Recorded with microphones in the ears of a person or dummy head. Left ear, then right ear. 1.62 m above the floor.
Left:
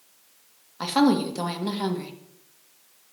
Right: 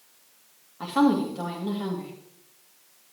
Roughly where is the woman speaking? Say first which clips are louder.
Left 1 dB; left.